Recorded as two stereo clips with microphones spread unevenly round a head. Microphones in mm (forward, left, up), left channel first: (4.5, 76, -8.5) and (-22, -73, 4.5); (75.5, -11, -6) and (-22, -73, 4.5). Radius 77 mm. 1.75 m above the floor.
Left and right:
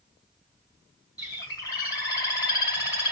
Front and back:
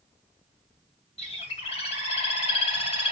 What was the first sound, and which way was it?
A bird, 15° left.